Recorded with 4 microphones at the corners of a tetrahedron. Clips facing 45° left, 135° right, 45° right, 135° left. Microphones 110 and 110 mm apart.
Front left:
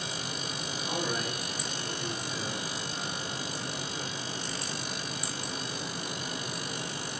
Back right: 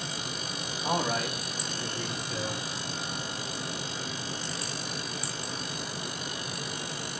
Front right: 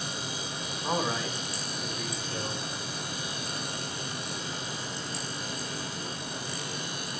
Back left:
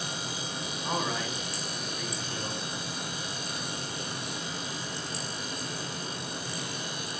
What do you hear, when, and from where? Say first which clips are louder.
0.8 s a man speaking: back right 5 dB, front right 2 dB; 115° right, 5 m; by 2.7 s 125° right, 4.5 m